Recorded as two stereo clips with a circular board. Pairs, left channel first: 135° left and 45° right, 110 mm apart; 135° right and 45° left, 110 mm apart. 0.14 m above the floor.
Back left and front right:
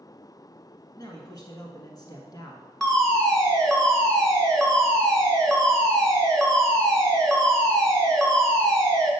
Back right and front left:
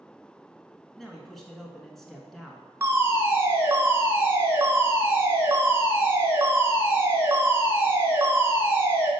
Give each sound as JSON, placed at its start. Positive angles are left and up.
{"t": 1.0, "sound": "a man speaking", "azimuth_deg": 140, "distance_m": 1.3}
{"t": 2.8, "sound": "a fire alarm", "azimuth_deg": 60, "distance_m": 2.0}